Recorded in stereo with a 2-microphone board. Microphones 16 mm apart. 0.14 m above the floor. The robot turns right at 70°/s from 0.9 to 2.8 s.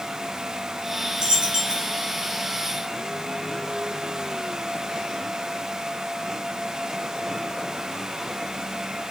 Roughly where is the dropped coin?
Behind right.